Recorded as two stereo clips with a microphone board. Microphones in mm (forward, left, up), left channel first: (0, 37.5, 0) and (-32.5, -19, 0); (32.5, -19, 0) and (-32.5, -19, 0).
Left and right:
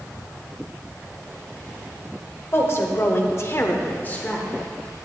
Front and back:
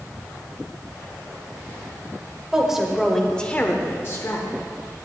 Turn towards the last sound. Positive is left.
turn(degrees=-5)